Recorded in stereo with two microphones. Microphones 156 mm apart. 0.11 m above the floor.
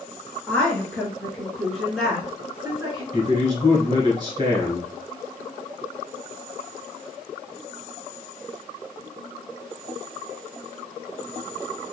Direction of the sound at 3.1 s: 30° right (ahead or behind).